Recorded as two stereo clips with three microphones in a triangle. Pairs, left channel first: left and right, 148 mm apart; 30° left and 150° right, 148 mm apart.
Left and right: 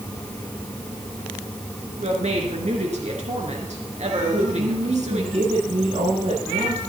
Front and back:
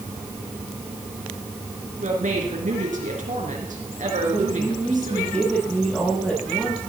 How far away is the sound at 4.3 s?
About 8 m.